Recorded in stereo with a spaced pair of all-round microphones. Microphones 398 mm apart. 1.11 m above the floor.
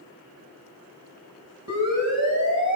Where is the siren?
40° right (ahead or behind), 7 m; by 2.8 s 50° right (ahead or behind), 7 m.